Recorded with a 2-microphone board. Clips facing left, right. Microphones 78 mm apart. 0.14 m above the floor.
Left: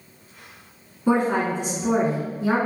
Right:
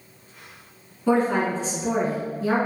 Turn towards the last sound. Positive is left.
turn(degrees=20)  # may be behind; listen again after turning